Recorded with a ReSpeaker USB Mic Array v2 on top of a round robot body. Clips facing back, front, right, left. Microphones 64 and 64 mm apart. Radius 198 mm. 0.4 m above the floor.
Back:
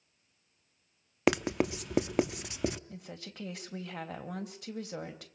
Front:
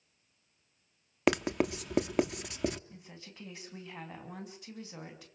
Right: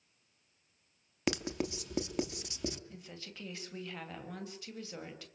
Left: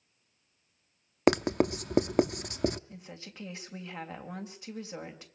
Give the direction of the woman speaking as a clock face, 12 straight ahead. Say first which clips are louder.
Back 6 dB, left 2 dB; 7 o'clock.